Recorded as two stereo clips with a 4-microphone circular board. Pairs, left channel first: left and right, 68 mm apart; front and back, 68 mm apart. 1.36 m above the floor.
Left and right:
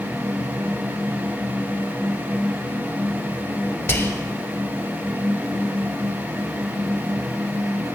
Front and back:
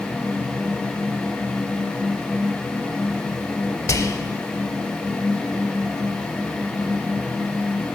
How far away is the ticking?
No ticking in this recording.